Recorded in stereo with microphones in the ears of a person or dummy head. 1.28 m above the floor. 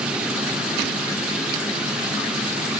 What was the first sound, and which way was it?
Only background noise.